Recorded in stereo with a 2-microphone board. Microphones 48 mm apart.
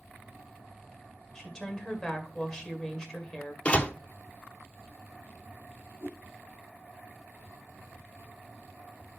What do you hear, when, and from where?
1.4 s a woman speaking: 15° left (ahead or behind), 1.9 m
3.6 s a door slam: 25° left (ahead or behind), 0.7 m
6.0 s a whoosh: 55° left (ahead or behind), 3 m